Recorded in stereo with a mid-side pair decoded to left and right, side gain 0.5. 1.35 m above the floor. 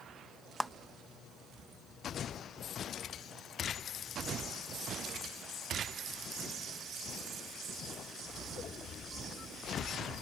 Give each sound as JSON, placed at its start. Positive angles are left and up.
{"t": 0.6, "sound": "a clap", "azimuth_deg": -5}